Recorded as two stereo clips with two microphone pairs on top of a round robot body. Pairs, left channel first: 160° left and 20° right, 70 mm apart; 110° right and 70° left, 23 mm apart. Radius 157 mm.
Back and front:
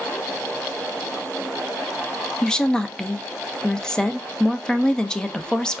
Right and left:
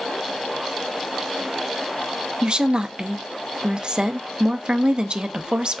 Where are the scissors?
No scissors in this recording.